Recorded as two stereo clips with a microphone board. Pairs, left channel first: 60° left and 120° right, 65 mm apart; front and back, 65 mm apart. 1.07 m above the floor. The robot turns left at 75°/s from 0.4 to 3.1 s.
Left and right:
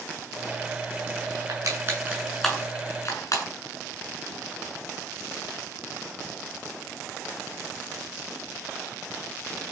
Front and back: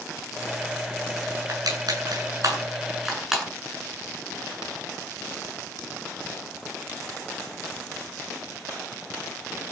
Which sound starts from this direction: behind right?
Crushing, at 1.5 s.